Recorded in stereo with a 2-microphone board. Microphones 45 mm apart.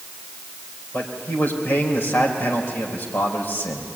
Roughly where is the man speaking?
Left.